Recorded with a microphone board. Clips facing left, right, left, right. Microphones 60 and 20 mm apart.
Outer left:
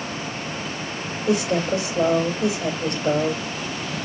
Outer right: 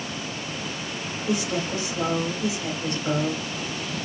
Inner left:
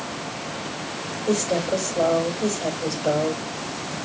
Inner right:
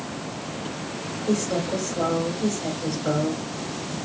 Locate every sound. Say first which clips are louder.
1.3 s a woman speaking: outer left 6 dB, inner left 2 dB; 60° left (ahead or behind), 3.5 m